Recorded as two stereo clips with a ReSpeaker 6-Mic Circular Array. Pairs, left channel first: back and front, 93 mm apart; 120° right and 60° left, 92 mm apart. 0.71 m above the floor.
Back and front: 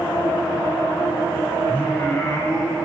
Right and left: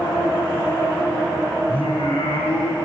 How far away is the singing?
About 3 m.